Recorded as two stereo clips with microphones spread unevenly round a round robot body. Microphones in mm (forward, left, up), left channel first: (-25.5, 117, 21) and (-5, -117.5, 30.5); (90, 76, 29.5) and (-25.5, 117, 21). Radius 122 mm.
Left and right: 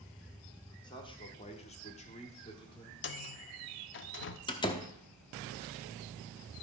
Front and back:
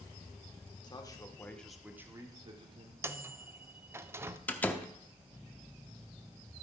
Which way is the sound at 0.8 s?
30° left.